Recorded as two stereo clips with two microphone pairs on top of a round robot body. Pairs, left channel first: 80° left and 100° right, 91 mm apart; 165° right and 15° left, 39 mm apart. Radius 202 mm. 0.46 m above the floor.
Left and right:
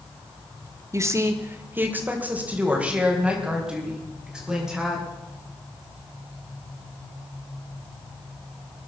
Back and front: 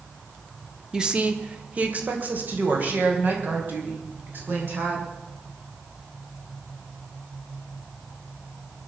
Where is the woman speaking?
50° right, 1.9 m; by 5.1 s 15° right, 6.5 m.